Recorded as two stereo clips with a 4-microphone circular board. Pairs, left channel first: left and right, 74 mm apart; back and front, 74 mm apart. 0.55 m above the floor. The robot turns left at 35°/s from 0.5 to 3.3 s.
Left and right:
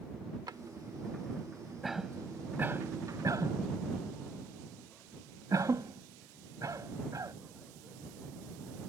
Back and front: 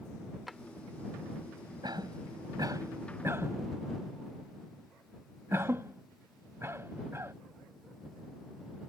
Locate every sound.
0.5 s a drawer: 90° right
1.8 s a cough: straight ahead; by 7.3 s 50° right